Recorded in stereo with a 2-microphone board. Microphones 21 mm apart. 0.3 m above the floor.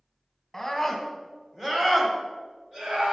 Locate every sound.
0.5 s a scream: 5° left (ahead or behind), 2 m; by 3.1 s 50° right (ahead or behind), 2 m